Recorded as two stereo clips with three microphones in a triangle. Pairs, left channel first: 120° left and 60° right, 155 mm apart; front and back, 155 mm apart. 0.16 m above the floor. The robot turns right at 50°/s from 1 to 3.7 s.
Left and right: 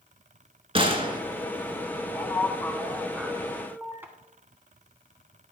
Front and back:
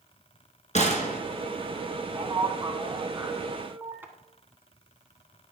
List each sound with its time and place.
0.8 s a gunshot: 20° right, 1.1 m; by 1.2 s 5° right, 1.1 m
2.1 s a man speaking: 160° left, 1.1 m; by 4.1 s 120° right, 1.1 m